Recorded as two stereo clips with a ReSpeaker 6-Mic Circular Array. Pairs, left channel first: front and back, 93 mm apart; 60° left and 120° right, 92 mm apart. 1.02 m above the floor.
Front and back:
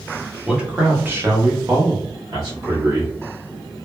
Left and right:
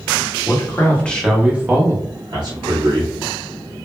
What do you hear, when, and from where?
0.5 s a man speaking: 100° left, 0.9 m; by 3.1 s 140° right, 1.3 m